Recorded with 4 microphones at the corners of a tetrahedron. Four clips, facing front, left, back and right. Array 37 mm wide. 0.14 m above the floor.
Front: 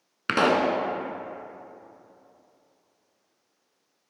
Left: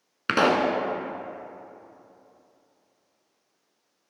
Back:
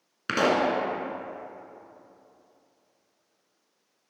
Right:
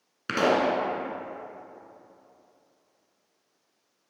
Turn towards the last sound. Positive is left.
turn(degrees=55)